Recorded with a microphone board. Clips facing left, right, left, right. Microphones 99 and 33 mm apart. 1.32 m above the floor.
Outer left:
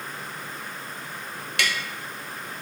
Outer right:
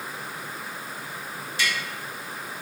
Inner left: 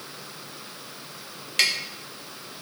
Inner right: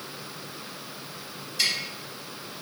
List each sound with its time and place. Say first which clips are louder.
1.6 s tapping: outer left 1 dB, inner left 4 dB; 85° left, 1.0 m